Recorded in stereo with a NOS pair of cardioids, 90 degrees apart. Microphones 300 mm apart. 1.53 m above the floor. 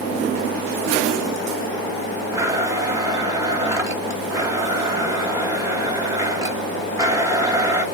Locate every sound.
2.3 s a blender: 10° right, 2 m